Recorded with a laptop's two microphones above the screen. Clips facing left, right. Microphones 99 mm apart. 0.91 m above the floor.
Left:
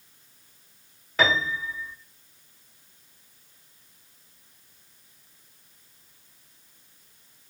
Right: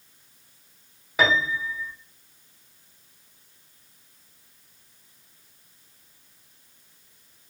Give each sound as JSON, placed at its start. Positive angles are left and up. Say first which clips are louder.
{"t": 1.2, "sound": "a piano", "louder": "right 2 dB", "side_deg": -10, "distance_m": 0.7}